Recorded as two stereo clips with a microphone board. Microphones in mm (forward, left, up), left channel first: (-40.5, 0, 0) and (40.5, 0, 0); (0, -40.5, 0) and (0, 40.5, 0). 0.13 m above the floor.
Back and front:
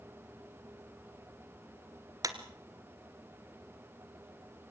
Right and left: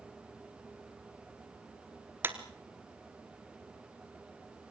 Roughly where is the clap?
Ahead left.